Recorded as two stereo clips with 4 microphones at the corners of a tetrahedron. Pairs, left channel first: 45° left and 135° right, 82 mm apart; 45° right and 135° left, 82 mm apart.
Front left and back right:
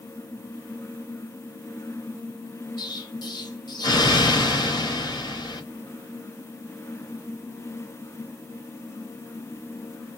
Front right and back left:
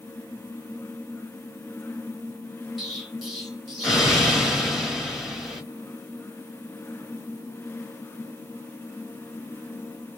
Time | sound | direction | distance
2.8 | an explosion | 45° left | 1.7 m